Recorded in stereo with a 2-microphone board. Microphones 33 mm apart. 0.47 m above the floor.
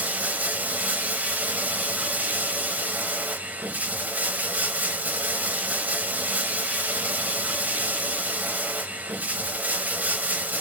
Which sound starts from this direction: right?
Running water, at 0.0 s.